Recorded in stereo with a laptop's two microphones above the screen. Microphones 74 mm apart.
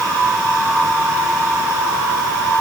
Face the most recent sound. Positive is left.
No sound to turn to.